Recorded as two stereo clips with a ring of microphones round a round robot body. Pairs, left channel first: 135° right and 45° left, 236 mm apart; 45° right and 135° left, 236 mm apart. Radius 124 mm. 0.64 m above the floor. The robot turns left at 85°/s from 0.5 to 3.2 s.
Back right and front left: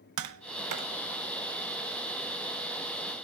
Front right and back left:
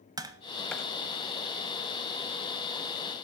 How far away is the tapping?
About 0.9 m.